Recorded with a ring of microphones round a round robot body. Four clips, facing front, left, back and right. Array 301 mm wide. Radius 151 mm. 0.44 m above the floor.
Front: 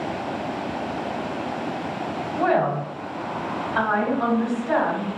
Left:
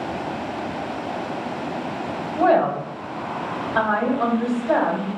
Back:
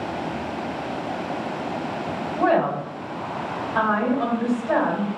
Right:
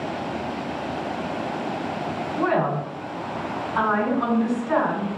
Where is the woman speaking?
110° left, 1.9 m.